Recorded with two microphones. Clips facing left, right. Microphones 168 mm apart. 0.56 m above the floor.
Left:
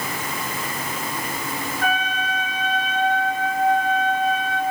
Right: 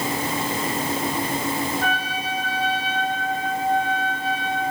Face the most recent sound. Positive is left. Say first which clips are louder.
# left 2 dB
turn(degrees=-35)  # may be behind; listen again after turning